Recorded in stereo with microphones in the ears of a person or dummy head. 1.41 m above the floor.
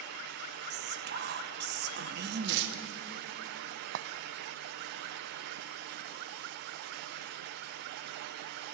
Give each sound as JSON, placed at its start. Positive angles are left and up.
{"t": 0.7, "sound": "whispering", "side_deg": -55, "distance_m": 1.4}
{"t": 2.4, "sound": "tearing paper", "side_deg": -60, "distance_m": 1.7}
{"t": 4.0, "sound": "a clink", "side_deg": -60, "distance_m": 0.5}